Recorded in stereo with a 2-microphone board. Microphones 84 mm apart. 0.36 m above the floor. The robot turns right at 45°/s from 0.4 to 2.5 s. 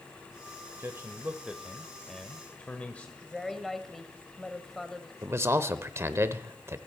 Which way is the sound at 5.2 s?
35° right (ahead or behind).